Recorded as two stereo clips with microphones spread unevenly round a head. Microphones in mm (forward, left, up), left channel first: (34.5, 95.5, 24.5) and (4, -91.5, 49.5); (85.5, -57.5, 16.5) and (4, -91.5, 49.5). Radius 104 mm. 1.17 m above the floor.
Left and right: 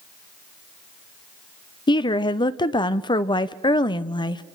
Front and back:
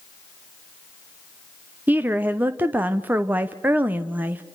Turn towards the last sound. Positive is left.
turn(degrees=115)